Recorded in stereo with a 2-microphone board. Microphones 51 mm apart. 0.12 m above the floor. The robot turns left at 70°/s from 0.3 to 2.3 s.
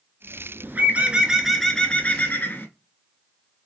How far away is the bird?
About 0.6 m.